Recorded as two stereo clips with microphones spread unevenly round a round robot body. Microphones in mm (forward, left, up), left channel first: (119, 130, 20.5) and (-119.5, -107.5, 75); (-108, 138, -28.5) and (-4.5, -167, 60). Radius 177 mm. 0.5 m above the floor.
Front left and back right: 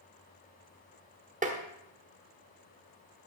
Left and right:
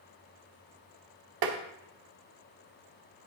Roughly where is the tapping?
Ahead right.